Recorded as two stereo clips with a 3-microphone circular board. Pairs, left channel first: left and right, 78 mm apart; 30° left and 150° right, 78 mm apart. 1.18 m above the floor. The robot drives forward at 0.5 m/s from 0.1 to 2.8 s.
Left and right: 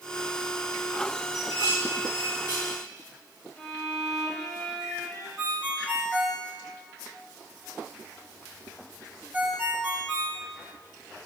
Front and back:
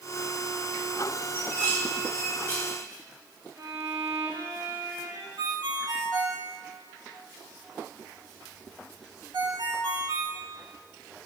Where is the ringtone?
160° right, 1.2 m.